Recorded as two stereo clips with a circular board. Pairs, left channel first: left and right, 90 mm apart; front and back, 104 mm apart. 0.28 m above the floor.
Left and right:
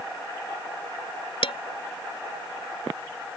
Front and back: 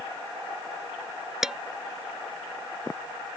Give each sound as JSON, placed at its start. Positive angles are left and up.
{"t": 1.4, "sound": "dishes clattering", "azimuth_deg": 95}